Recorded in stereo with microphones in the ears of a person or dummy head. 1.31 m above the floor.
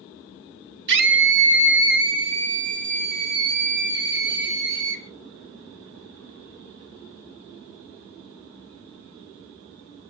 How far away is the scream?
About 3 m.